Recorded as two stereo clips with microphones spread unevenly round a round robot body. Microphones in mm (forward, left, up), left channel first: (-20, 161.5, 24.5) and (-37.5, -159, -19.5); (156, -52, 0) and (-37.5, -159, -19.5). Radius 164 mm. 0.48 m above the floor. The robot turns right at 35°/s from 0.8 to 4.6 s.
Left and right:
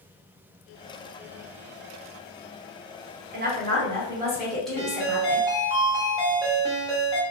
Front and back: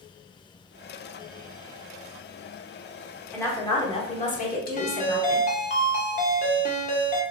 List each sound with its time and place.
3.3 s a woman speaking: 55° right, 0.9 m; by 5.5 s 10° right, 0.9 m
4.8 s a ringtone: 25° right, 0.7 m